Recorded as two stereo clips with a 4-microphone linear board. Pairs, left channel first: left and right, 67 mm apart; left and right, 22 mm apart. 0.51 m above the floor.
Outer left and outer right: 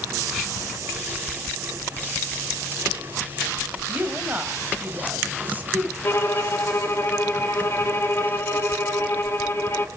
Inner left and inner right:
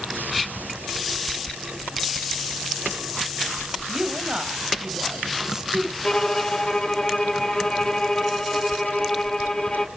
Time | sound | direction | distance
3.9 | a woman speaking | 25° right (ahead or behind) | 2.5 m
6.0 | a violin | 40° left (ahead or behind) | 1.3 m